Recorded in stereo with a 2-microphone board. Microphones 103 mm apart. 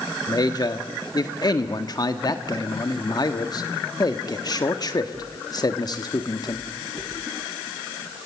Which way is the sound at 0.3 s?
40° left (ahead or behind).